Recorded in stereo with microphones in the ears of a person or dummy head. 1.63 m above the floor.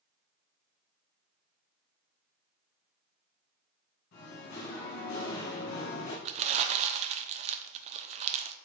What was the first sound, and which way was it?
Singing, 55° left (ahead or behind).